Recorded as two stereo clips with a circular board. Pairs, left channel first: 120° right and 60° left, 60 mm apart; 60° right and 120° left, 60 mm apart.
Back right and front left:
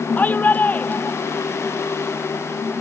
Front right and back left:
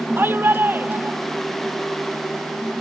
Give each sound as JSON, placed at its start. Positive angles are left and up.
{"t": 0.2, "sound": "a shout", "azimuth_deg": 175}